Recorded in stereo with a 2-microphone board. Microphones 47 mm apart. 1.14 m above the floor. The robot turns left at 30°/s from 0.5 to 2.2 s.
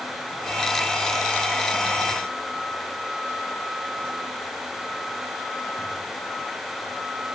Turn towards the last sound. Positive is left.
No sound to turn to.